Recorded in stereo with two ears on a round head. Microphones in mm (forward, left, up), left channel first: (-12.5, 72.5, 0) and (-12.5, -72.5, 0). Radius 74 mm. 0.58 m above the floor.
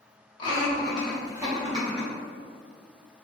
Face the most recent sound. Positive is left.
turn(degrees=-35)  # may be behind; listen again after turning